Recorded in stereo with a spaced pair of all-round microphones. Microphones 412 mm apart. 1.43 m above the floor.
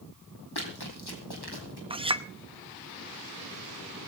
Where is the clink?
15° right (ahead or behind), 0.7 m.